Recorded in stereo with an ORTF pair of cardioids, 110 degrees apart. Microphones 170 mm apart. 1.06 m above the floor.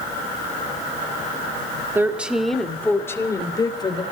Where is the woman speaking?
15° right, 2 m; by 4.0 s 30° left, 3.5 m.